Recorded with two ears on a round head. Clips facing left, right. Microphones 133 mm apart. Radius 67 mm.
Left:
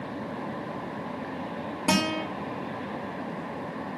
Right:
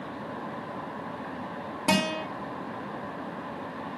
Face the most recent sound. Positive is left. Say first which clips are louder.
# even
turn(degrees=0)  # may be behind; listen again after turning